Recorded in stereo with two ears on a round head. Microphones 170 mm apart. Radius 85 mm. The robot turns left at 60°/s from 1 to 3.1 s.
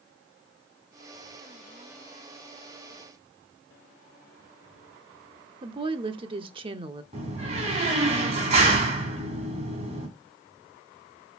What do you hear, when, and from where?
5.6 s a woman speaking: 30° right (ahead or behind), 0.8 m
7.1 s a door slam: 35° right (ahead or behind), 3 m